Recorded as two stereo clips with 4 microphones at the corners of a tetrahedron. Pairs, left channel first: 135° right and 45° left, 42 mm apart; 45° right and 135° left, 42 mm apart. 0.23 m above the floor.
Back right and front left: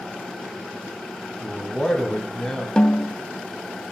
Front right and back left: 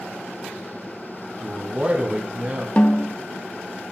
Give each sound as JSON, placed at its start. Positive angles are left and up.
{"t": 1.4, "sound": "a man speaking", "azimuth_deg": 155, "distance_m": 2.0}
{"t": 2.8, "sound": "a snare drum", "azimuth_deg": -80, "distance_m": 0.7}